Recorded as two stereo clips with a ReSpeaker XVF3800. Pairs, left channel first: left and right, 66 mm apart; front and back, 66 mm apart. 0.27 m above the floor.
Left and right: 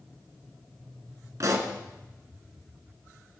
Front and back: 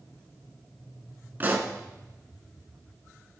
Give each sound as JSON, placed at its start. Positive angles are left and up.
{"t": 1.4, "sound": "a pop", "azimuth_deg": -120, "distance_m": 1.1}